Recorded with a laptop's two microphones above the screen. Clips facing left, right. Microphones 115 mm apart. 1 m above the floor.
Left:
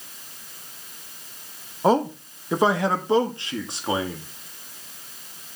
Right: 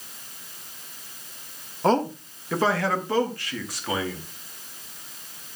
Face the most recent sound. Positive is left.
turn(degrees=25)  # may be behind; listen again after turning